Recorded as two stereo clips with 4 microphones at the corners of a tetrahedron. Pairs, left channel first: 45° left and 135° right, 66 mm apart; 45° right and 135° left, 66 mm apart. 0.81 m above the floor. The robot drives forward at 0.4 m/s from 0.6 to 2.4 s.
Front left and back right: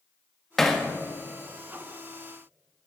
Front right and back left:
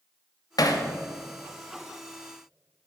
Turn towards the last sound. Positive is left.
turn(degrees=-110)